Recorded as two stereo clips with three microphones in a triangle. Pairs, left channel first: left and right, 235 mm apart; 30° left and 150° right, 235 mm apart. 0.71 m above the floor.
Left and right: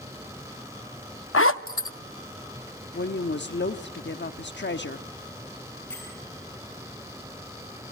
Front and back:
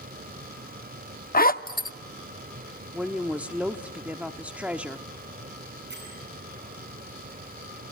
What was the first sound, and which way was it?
A zipper, 75° left.